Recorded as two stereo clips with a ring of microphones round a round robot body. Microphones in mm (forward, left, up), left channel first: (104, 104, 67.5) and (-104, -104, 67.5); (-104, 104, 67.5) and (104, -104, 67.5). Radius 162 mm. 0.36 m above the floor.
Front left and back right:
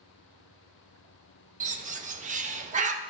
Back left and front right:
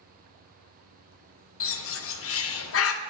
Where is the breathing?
I don't hear breathing.